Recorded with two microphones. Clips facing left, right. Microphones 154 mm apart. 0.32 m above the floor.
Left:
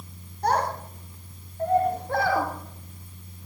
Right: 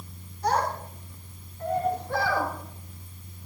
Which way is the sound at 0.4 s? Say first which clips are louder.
Left 1 dB; 55° left (ahead or behind).